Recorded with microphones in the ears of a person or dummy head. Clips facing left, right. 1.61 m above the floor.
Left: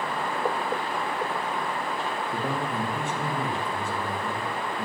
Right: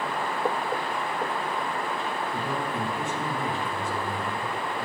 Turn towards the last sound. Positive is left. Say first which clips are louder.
# left 1 dB
turn(degrees=45)  # may be behind; listen again after turning